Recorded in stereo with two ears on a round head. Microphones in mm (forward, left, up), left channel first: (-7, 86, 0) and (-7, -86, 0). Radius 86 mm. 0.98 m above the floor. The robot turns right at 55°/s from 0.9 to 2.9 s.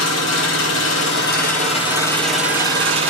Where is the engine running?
100° left, 8 m; by 3.1 s 150° right, 8 m.